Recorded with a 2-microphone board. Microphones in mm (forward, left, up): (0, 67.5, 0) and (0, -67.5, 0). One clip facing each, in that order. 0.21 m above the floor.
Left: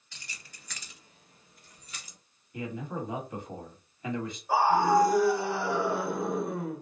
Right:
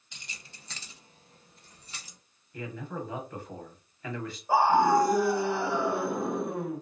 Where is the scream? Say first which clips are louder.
Right 1 dB; 15° right (ahead or behind), 1.8 m.